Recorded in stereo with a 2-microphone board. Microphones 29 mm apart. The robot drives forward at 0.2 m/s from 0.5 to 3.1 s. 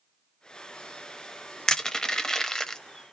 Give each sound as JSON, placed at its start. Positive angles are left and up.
{"t": 1.7, "sound": "crushing", "side_deg": 25, "distance_m": 0.8}